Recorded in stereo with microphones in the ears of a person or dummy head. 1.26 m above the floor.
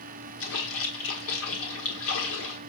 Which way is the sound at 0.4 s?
70° left (ahead or behind).